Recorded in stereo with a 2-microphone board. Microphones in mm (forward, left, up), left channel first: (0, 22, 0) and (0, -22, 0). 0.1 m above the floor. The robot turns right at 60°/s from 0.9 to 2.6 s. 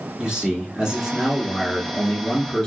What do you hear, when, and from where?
0.2 s a man speaking: 15° right (ahead or behind), 1.1 m; by 2.7 s 20° left (ahead or behind), 1.1 m